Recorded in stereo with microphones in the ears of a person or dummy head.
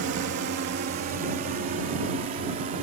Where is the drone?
55° right (ahead or behind); by 2.8 s 35° right (ahead or behind).